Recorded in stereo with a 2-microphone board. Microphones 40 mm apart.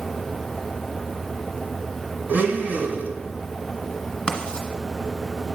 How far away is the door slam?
I don't hear a door slam.